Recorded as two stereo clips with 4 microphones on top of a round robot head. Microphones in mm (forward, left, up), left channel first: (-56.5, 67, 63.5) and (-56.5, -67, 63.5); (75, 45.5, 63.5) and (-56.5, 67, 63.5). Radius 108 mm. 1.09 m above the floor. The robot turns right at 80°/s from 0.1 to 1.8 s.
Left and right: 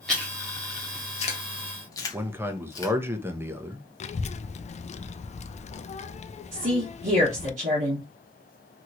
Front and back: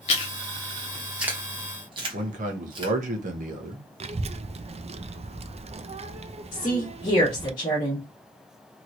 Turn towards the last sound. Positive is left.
turn(degrees=-65)